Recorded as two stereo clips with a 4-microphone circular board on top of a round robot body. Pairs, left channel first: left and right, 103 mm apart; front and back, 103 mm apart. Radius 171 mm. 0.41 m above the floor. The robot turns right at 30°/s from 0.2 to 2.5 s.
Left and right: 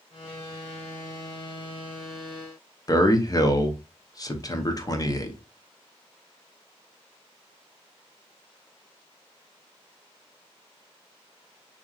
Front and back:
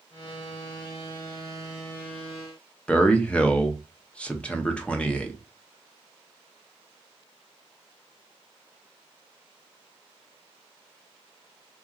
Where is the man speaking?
70° left, 0.9 m.